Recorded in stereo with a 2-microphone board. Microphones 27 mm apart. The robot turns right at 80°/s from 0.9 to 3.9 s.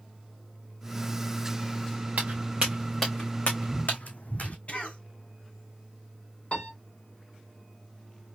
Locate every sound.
2.2 s footsteps: 70° right (ahead or behind), 1.9 m; by 4.6 s 60° left (ahead or behind), 0.9 m
4.7 s a cough: 50° left (ahead or behind), 1.5 m
6.5 s a piano: 50° left (ahead or behind), 2.5 m